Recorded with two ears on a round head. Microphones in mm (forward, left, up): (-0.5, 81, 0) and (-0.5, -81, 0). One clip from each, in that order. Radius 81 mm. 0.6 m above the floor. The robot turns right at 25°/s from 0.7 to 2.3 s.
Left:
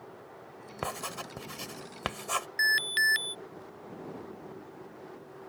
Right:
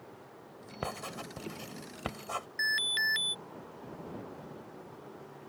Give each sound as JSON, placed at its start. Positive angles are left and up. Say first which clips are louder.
{"t": 0.8, "sound": "writing", "louder": "left 3 dB", "side_deg": 25}
{"t": 2.6, "sound": "an alarm", "louder": "left 4 dB", "side_deg": 30}